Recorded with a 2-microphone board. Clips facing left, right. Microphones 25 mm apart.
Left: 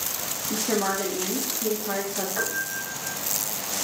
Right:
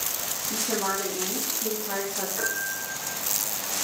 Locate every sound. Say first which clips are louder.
0.5 s a woman speaking: left 3 dB; 15° left (ahead or behind), 2 m
2.4 s a piano: even; 45° left (ahead or behind), 6 m